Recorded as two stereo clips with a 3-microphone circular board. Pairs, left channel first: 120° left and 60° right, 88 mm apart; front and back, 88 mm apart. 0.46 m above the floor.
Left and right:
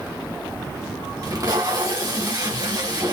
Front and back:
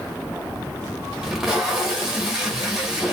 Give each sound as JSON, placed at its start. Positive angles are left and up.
{"t": 1.2, "sound": "tape being pulled", "azimuth_deg": -95, "distance_m": 1.2}